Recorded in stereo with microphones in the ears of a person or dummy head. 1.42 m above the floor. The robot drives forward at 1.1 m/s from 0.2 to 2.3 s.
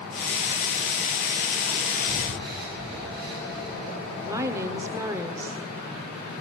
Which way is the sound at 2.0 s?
30° right (ahead or behind).